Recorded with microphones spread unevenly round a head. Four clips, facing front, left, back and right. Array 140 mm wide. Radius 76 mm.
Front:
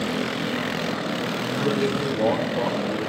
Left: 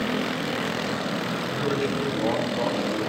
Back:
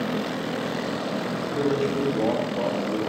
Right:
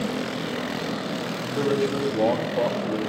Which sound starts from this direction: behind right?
A man speaking, at 1.6 s.